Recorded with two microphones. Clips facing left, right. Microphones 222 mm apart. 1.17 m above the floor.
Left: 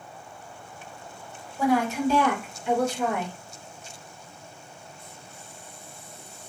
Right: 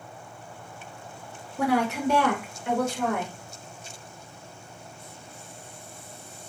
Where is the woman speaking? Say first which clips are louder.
Left 1 dB; 75° right (ahead or behind), 0.7 m; by 3.4 s 55° right (ahead or behind), 1.4 m.